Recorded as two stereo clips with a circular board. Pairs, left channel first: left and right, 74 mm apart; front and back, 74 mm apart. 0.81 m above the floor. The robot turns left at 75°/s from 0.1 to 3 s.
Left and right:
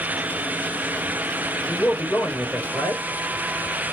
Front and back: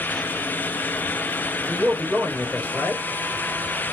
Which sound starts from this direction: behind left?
A man speaking, at 1.7 s.